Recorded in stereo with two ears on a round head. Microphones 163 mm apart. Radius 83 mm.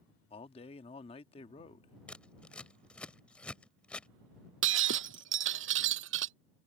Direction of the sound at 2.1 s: 5° left (ahead or behind).